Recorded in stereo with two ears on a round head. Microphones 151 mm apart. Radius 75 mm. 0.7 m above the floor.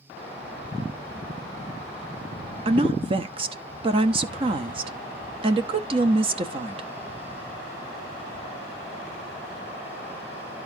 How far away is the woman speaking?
About 0.9 m.